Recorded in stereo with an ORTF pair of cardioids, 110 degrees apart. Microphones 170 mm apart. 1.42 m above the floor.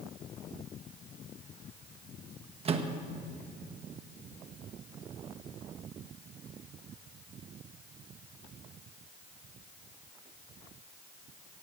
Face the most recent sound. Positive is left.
turn(degrees=-35)